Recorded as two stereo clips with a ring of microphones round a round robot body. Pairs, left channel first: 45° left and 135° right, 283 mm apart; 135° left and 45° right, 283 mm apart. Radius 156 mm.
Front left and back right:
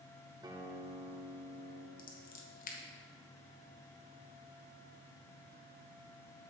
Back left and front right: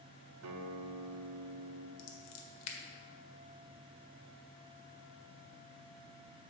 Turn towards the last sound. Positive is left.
turn(degrees=105)